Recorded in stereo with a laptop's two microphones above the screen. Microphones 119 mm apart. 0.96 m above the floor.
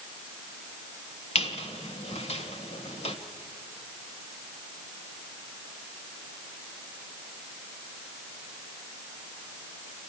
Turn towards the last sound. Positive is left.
turn(degrees=65)  # may be behind; listen again after turning